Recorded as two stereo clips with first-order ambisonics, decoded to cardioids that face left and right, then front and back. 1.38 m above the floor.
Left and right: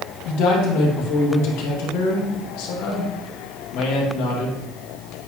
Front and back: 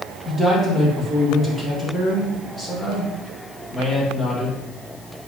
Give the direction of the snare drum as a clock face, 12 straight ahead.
I don't hear a snare drum.